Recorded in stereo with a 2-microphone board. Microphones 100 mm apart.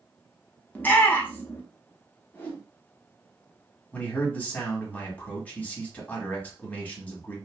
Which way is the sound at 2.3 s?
20° left (ahead or behind).